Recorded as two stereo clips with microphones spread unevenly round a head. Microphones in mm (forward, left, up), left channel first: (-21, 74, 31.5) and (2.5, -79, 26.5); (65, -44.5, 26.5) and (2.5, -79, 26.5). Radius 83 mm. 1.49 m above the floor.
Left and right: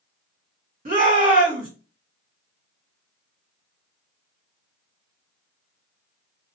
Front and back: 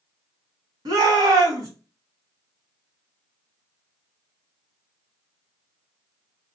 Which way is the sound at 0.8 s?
125° right.